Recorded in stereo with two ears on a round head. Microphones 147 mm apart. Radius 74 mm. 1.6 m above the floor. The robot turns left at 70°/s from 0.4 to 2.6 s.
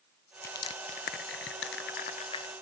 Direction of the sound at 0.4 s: 15° left (ahead or behind).